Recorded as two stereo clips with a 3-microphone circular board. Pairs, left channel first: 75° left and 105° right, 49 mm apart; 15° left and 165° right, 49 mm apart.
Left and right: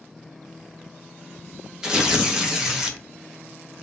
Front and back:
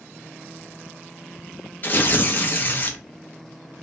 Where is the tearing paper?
30° right, 0.7 m.